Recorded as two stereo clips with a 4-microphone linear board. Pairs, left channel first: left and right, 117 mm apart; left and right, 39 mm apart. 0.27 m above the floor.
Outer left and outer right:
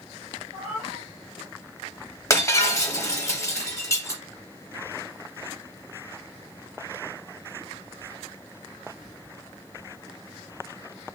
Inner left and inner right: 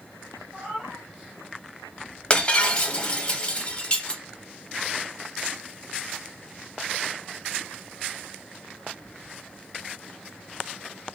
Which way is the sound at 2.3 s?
25° left (ahead or behind).